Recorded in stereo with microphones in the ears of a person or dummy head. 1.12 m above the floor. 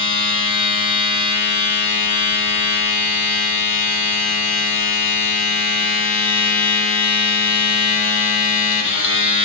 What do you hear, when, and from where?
0.0 s a machine running: 50° left (ahead or behind), 5 m